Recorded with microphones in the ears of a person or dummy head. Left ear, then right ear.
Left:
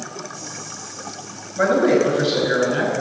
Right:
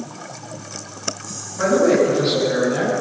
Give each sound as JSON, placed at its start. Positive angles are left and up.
{"t": 1.6, "sound": "a man speaking", "side_deg": 40, "distance_m": 5.5}